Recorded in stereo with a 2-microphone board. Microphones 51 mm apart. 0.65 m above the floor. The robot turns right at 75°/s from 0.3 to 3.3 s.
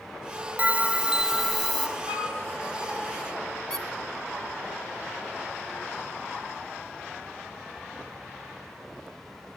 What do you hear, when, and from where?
0.6 s a bell: 25° right (ahead or behind), 0.9 m; by 1.9 s 5° left (ahead or behind), 0.9 m
2.1 s a flute: 75° right (ahead or behind), 5 m; by 2.4 s 55° right (ahead or behind), 5 m
3.7 s a squeak: 10° left (ahead or behind), 1.3 m